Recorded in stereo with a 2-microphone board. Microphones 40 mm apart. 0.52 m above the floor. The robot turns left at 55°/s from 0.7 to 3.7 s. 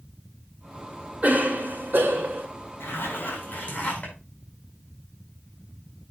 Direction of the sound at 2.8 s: 100° left.